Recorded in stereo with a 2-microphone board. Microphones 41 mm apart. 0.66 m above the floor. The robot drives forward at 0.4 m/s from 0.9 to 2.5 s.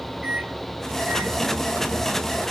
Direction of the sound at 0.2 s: 35° right (ahead or behind).